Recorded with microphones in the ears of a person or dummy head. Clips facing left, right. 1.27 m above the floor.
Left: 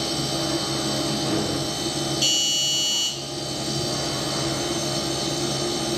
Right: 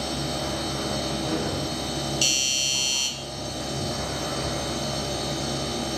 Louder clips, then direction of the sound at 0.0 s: Left 3 dB; 60° left (ahead or behind).